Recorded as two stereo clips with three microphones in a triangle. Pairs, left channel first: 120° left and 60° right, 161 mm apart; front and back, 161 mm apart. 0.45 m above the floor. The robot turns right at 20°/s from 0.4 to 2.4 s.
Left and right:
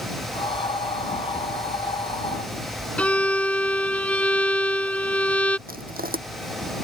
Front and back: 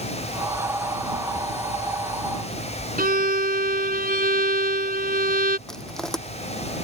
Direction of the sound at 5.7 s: 85° right.